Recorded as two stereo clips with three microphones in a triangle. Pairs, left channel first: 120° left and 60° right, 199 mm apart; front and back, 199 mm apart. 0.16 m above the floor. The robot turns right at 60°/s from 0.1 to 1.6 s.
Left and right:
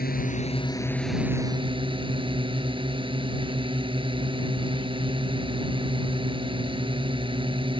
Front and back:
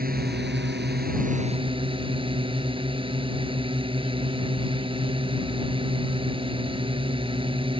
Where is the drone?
150° left; by 7.8 s 120° right.